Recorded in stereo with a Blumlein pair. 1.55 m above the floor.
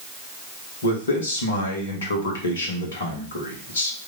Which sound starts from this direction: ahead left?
A man speaking, at 0.8 s.